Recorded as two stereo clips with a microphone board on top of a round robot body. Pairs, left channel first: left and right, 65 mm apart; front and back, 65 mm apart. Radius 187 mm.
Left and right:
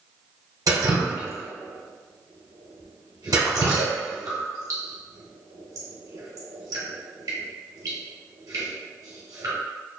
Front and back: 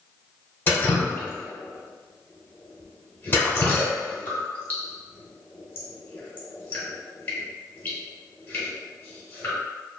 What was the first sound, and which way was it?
Dripping, 60° right.